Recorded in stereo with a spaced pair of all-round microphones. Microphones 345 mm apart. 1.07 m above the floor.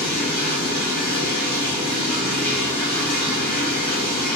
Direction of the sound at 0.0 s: 65° left (ahead or behind).